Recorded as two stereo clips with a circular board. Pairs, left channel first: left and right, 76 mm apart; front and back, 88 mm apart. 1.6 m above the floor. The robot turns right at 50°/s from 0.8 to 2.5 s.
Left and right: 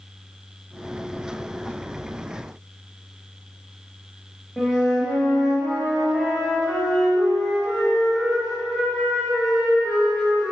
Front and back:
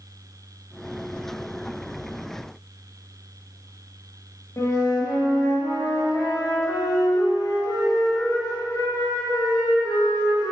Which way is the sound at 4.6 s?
Straight ahead.